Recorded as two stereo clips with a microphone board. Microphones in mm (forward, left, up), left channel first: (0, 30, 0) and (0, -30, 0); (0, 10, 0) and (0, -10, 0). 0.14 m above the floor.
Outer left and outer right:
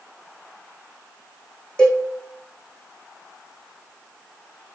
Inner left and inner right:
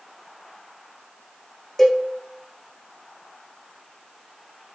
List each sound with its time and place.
1.8 s a cowbell: 15° left (ahead or behind), 3 m